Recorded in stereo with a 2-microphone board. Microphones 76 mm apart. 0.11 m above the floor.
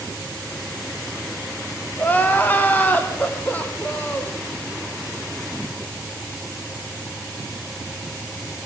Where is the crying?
25° left (ahead or behind), 5 m.